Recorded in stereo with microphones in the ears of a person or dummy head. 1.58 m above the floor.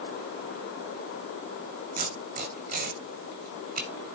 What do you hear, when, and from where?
2.0 s tape being pulled: 30° right (ahead or behind), 1.1 m